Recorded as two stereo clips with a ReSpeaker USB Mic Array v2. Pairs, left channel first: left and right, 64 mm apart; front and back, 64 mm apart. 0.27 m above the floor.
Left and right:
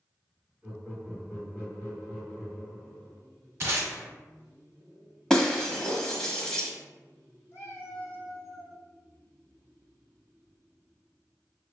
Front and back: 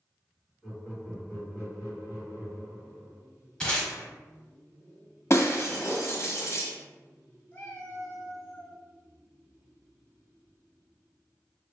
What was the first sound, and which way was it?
Laughter, 110° right.